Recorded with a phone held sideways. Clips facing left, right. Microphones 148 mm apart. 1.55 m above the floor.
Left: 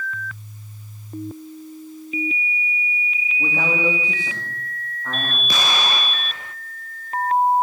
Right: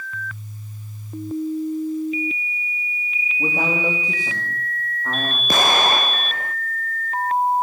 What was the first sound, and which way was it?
A man speaking, 15° right (ahead or behind).